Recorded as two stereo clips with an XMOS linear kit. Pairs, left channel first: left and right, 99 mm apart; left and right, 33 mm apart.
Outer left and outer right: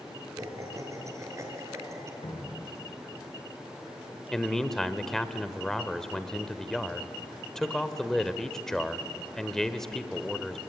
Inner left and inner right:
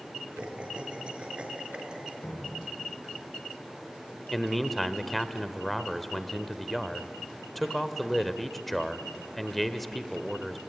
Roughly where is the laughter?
Right.